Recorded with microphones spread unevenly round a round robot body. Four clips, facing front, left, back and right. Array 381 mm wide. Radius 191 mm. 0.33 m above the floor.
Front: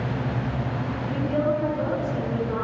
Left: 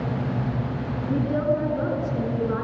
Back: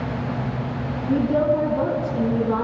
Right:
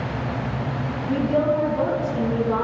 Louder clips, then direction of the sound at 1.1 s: Right 3 dB, back 6 dB; 165° right.